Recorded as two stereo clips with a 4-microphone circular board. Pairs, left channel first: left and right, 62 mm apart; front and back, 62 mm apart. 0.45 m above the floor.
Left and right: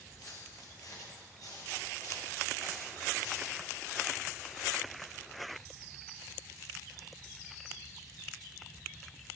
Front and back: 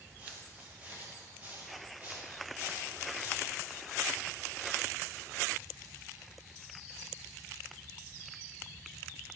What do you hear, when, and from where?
0.2 s footsteps: 115° left, 5.5 m; by 3.6 s 120° left, 7.5 m